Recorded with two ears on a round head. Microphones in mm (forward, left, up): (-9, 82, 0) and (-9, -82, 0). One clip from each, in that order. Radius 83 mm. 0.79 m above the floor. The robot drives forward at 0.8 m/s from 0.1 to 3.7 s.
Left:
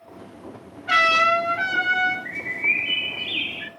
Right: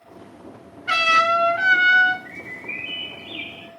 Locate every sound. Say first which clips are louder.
0.9 s a trumpet: even; 45° right (ahead or behind), 3 m; by 2.1 s 65° right (ahead or behind), 2.5 m
2.2 s a bird: left 10 dB; 40° left (ahead or behind), 1.0 m; by 3.7 s 45° left (ahead or behind), 0.9 m